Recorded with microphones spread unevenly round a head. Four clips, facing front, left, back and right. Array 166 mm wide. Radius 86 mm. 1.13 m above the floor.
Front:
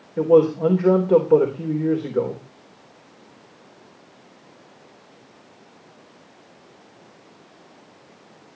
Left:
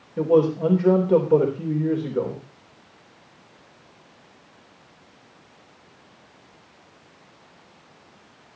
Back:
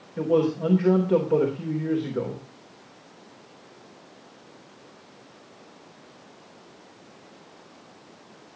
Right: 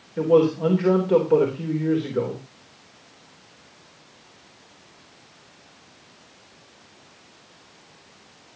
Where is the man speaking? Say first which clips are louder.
Right 1 dB, front 7 dB; 5° right, 3 m.